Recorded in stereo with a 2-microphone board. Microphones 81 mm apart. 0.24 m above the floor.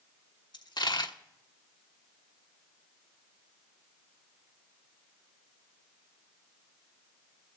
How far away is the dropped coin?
About 1.1 m.